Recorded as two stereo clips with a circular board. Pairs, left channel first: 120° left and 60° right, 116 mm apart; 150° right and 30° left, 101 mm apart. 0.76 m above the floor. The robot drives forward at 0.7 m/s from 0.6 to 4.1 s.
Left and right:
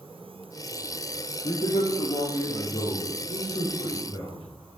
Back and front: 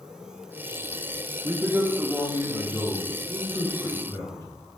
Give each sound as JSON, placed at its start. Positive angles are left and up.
{"t": 1.4, "sound": "a man speaking", "azimuth_deg": 90, "distance_m": 1.3}